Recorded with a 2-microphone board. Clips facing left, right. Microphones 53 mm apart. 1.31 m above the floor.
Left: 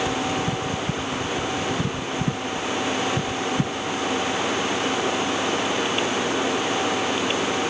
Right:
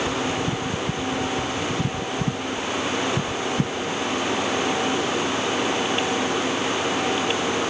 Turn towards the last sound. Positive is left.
No sound to turn to.